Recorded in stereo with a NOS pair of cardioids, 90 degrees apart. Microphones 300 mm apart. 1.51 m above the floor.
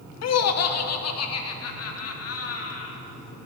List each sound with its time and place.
0.2 s laughter: 60° left, 1.0 m; by 3.0 s 50° left, 2.5 m